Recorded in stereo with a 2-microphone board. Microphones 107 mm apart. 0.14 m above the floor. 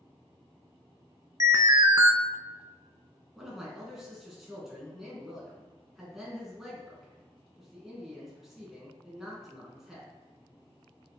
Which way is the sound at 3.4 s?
5° right (ahead or behind).